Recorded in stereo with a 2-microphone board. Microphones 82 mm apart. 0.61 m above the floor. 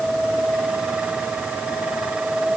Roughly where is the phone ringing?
No phone ringing in this recording.